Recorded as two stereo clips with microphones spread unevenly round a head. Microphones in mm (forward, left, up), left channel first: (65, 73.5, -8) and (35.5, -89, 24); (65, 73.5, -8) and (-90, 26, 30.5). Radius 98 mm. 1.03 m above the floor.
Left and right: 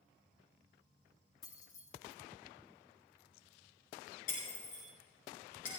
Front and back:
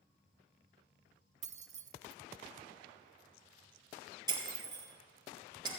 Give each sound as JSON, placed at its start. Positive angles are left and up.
{"t": 1.4, "sound": "keys jangling", "azimuth_deg": 155, "distance_m": 0.6}
{"t": 4.3, "sound": "breaking glass", "azimuth_deg": 135, "distance_m": 3.0}